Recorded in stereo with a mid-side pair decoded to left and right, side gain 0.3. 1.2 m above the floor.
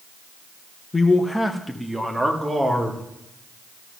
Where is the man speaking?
35° left, 1.2 m; by 3.0 s 30° right, 3.5 m.